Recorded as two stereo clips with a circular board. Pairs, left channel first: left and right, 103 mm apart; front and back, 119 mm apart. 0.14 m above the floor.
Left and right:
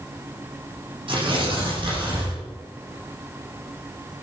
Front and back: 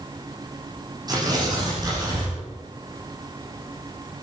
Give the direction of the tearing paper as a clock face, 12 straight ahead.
4 o'clock.